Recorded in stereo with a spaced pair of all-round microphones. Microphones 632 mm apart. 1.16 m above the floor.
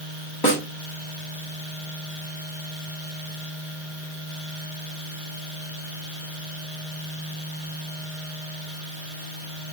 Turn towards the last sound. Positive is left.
turn(degrees=35)  # may be behind; listen again after turning